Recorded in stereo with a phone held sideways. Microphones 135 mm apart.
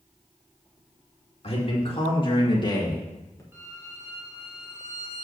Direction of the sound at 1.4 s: 50° left (ahead or behind).